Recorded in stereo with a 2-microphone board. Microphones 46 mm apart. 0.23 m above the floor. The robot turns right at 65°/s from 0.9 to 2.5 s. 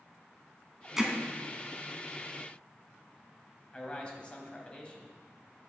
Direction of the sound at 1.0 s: 10° right (ahead or behind).